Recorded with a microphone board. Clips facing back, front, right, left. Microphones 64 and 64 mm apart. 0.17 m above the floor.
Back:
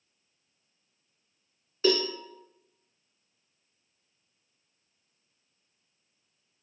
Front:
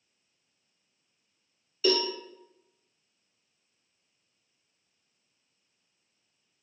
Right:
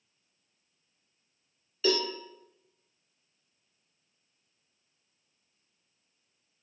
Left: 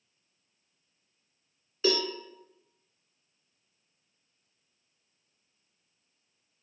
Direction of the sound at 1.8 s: 150° left.